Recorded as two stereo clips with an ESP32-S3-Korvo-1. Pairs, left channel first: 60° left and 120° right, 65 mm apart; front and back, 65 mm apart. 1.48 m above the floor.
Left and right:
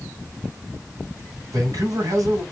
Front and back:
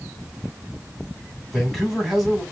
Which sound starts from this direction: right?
A man speaking, at 1.5 s.